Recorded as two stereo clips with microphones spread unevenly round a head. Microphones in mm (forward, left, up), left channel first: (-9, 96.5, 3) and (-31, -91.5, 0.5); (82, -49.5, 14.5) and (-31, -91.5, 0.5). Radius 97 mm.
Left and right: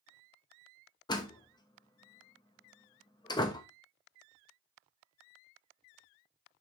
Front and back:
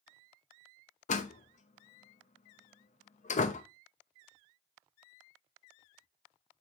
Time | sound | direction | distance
1.1 | a door slam | 15° left | 0.7 m